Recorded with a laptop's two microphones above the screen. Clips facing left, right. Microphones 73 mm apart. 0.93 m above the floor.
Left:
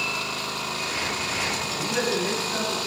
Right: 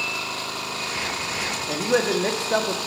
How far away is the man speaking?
About 1.2 m.